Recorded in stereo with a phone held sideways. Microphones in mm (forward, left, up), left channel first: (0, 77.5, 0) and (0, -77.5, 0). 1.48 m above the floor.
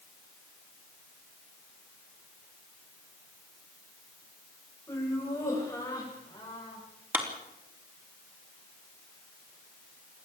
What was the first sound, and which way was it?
Laughter, 20° left (ahead or behind).